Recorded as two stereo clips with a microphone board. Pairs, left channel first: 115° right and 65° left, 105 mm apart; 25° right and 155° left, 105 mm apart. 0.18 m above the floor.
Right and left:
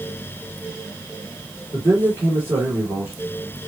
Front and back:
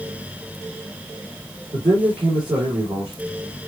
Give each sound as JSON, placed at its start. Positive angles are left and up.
{"t": 1.7, "sound": "a man speaking", "azimuth_deg": 135, "distance_m": 2.5}